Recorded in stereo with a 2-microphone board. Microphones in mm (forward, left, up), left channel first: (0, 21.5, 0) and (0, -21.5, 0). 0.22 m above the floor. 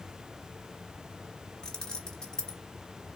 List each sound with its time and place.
1.6 s keys jangling: 15° left (ahead or behind), 1.2 m